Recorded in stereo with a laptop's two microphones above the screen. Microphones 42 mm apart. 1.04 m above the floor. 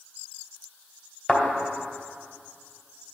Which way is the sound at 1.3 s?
20° left (ahead or behind).